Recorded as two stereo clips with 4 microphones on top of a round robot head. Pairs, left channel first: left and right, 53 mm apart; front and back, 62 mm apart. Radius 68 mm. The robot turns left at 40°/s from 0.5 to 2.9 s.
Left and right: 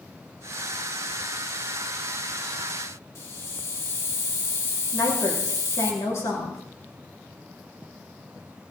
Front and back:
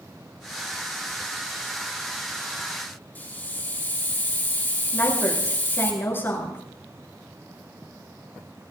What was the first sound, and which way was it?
A hiss, 55° left.